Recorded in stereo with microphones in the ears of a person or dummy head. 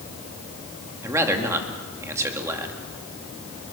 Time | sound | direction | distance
1.0 | a man speaking | 15° right (ahead or behind) | 3 m